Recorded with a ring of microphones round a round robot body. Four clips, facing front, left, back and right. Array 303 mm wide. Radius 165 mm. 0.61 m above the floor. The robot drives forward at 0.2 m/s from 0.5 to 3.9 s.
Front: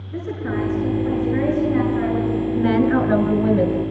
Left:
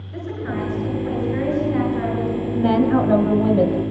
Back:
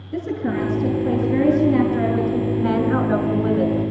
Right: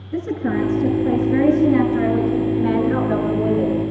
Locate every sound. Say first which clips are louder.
0.1 s a woman speaking: right 6 dB, back 2 dB; 140° right, 9 m; by 2.5 s 145° right, 9.5 m
2.5 s a woman speaking: left 1 dB, front 5 dB; 65° left, 4.5 m